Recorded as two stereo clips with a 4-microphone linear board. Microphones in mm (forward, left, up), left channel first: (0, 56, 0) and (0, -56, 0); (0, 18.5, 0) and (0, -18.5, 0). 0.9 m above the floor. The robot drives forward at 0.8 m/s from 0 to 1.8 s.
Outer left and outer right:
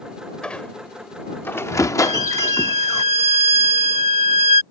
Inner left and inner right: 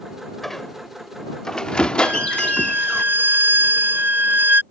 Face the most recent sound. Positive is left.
turn(degrees=-80)